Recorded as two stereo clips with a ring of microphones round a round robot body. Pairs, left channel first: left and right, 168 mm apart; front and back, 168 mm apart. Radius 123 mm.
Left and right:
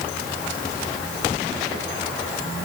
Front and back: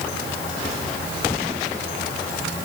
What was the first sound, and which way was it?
Only background noise.